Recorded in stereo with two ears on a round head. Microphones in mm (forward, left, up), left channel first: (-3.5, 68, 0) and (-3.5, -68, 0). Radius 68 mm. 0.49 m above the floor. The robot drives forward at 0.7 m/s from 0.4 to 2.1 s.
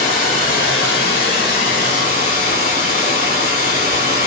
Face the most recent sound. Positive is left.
turn(degrees=50)  # may be behind; listen again after turning